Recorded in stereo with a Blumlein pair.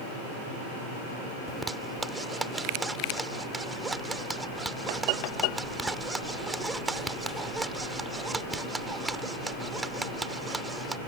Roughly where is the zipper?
Ahead.